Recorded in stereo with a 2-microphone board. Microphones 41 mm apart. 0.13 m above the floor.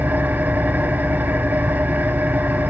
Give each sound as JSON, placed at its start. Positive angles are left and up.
{"t": 0.0, "sound": "an engine running", "side_deg": -45, "distance_m": 0.7}